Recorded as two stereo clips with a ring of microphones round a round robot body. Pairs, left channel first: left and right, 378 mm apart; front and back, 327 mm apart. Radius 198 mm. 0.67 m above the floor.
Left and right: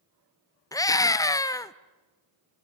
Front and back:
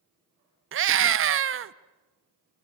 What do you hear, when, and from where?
0.7 s a scream: 165° left, 0.7 m